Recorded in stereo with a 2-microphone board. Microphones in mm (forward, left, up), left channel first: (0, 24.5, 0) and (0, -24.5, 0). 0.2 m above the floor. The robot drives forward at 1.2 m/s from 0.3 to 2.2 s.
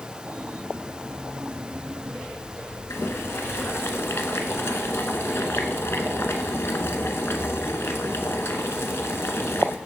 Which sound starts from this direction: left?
Boiling, at 2.9 s.